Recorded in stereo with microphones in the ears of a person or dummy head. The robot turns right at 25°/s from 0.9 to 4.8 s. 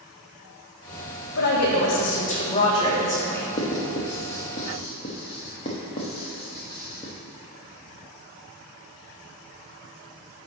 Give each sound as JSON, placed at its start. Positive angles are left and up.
{"t": 1.4, "sound": "a woman speaking", "azimuth_deg": 115, "distance_m": 1.6}
{"t": 3.6, "sound": "writing", "side_deg": 20, "distance_m": 0.9}